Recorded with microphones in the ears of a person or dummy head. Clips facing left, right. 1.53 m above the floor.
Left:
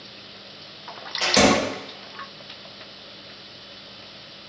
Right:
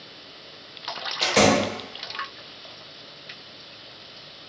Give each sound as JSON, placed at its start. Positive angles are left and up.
{"t": 1.2, "sound": "a door slam", "side_deg": 5, "distance_m": 0.8}